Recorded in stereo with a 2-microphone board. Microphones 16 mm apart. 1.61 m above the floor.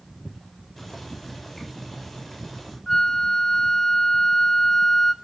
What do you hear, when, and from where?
0.8 s boiling: 10° left (ahead or behind), 8.5 m
2.9 s a flute: 20° left (ahead or behind), 1.3 m